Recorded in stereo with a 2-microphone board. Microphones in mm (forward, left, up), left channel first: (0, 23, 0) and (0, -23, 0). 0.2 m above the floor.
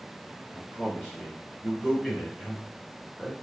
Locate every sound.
0.5 s a man speaking: 5° left (ahead or behind), 2.5 m; by 3.3 s 20° right (ahead or behind), 1.5 m